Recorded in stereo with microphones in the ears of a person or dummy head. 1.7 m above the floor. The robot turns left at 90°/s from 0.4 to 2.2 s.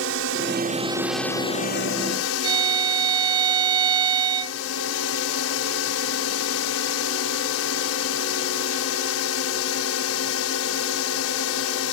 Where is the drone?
115° right; by 11.9 s 85° left.